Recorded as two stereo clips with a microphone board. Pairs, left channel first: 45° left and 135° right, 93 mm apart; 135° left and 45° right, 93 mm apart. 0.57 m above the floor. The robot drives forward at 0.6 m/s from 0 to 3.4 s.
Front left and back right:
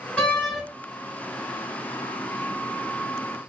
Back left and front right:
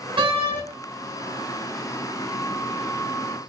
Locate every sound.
0.2 s a door slam: 25° right, 1.8 m; by 0.6 s 30° right, 1.5 m